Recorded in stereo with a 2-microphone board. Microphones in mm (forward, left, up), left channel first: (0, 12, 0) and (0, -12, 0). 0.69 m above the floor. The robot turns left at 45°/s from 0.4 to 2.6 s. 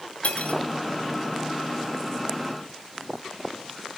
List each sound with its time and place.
0.2 s cutlery clinking: 70° left (ahead or behind), 2.5 m; by 0.6 s 80° left, 2.5 m